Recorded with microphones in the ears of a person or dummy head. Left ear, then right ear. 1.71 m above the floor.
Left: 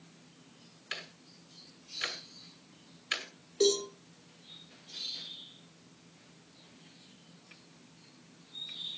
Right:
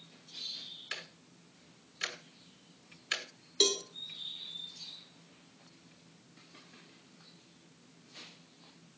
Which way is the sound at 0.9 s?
5° right (ahead or behind).